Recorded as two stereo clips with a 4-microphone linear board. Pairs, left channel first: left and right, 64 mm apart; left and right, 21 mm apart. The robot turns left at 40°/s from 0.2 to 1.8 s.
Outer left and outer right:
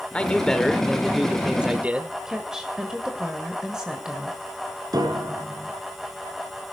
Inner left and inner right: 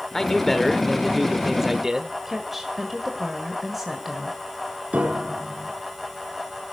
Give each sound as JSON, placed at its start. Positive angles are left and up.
{"t": 0.1, "sound": "a man speaking", "azimuth_deg": 30, "distance_m": 1.2}
{"t": 2.2, "sound": "a woman speaking", "side_deg": -10, "distance_m": 1.8}
{"t": 4.9, "sound": "a piano", "side_deg": -70, "distance_m": 3.0}